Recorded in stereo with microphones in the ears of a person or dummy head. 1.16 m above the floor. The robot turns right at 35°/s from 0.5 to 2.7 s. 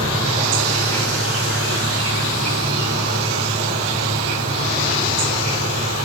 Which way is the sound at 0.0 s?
145° right.